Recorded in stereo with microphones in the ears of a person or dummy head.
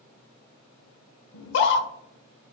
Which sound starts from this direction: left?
A scream, at 1.3 s.